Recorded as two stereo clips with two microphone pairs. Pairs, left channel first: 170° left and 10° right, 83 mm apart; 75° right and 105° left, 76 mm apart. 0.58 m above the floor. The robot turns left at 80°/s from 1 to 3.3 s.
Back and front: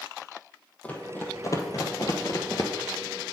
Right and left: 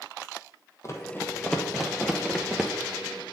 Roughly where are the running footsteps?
Behind right.